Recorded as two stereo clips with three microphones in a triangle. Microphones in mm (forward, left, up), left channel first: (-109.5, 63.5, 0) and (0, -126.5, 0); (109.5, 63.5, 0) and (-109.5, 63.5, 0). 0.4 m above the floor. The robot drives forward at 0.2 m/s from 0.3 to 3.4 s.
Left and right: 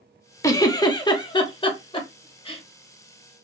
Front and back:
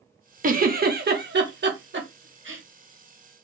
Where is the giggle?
170° right, 0.5 m; by 2.6 s 175° right, 0.9 m.